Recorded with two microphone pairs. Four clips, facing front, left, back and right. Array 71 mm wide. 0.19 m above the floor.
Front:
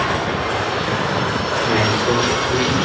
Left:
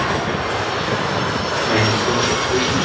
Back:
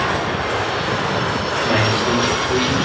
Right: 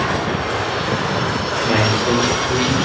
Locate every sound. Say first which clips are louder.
1.6 s a man speaking: right 1 dB, even; 110° right, 4.5 m